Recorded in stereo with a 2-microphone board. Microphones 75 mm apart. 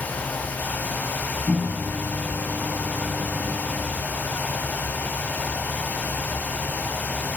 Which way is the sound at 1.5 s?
15° left (ahead or behind).